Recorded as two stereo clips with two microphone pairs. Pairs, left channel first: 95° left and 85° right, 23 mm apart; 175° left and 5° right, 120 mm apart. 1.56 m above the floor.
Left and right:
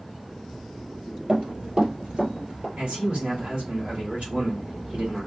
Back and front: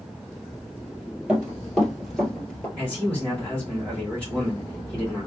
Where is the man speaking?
105° right, 3 m.